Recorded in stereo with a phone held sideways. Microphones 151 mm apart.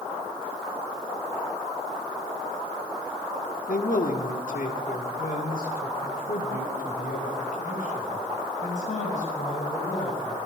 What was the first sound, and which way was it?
A man speaking, 70° left (ahead or behind).